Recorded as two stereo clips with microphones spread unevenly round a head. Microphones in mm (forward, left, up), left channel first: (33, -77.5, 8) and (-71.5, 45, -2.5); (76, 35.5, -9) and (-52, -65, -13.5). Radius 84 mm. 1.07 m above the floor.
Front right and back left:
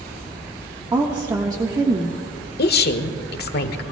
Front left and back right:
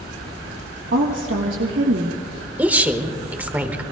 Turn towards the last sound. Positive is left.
turn(degrees=-65)